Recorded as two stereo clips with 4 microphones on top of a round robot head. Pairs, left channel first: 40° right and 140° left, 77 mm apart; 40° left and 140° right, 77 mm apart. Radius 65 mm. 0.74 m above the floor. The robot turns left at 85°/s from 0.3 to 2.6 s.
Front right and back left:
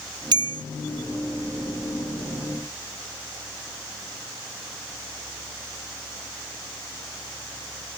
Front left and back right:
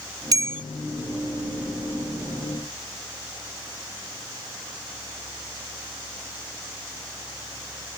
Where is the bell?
175° left; by 0.6 s 150° left.